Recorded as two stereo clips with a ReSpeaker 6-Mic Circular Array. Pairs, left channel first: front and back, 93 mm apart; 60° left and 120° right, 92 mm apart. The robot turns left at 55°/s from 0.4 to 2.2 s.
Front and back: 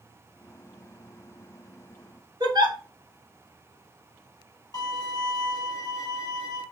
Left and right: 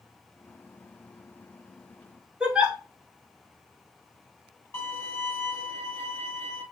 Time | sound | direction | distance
2.4 | a giggle | 165° left | 1.0 m
4.7 | a violin | 10° left | 1.6 m